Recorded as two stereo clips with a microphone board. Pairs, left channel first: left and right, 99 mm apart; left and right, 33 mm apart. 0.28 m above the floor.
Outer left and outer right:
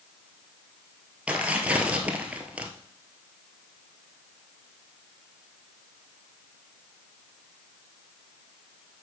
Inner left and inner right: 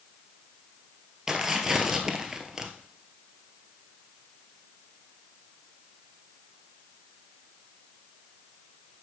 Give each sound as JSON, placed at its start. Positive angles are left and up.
{"t": 1.3, "sound": "tearing paper", "side_deg": -15, "distance_m": 1.2}